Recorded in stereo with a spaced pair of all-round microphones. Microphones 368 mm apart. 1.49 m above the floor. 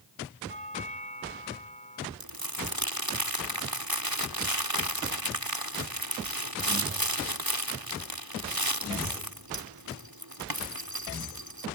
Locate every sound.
0.5 s a doorbell: 20° left (ahead or behind)
2.2 s crumpling: 70° right (ahead or behind)